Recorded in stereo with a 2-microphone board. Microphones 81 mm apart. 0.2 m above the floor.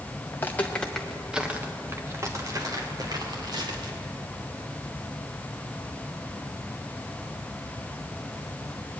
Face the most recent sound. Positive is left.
turn(degrees=-60)  # may be behind; listen again after turning